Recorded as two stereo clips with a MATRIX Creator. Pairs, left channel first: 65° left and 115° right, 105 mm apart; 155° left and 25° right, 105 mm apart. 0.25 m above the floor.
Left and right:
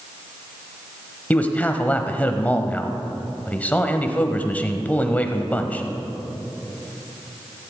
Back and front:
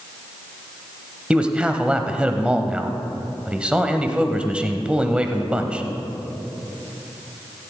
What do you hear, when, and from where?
1.3 s a man speaking: 35° left, 0.9 m